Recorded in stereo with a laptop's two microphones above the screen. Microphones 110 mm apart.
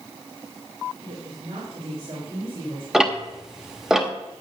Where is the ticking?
5° right (ahead or behind), 0.8 m.